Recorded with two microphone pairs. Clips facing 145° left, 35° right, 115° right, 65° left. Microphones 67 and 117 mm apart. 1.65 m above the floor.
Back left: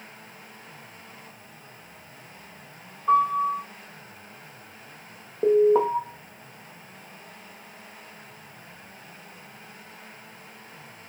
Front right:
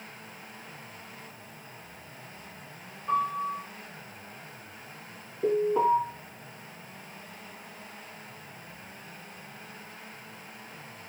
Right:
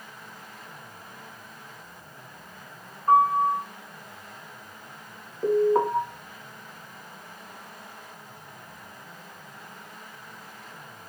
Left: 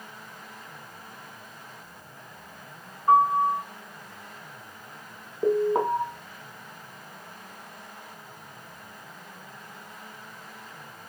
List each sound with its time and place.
3.1 s a piano: 145° left, 2.5 m
5.4 s an alarm: 140° left, 1.6 m